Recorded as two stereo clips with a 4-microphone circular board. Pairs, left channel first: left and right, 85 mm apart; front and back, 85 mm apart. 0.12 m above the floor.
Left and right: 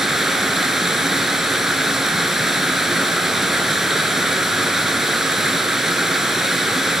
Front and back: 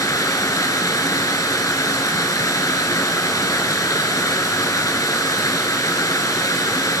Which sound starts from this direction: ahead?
Running water, at 0.0 s.